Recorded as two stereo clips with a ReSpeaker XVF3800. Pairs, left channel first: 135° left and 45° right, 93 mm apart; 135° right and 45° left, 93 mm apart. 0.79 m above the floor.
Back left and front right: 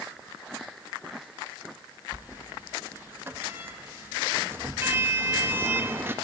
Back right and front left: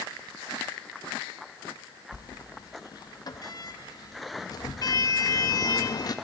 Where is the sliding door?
105° right, 0.5 m.